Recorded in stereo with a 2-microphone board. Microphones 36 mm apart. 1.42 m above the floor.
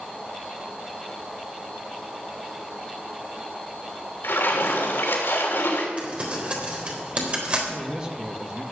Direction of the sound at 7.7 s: 25° right (ahead or behind).